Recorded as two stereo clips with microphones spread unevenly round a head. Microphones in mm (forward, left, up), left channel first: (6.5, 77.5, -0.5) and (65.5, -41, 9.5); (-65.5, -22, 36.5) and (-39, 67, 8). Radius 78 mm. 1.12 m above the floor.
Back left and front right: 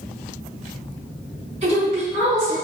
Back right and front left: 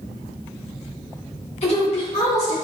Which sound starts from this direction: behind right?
A woman speaking, at 1.6 s.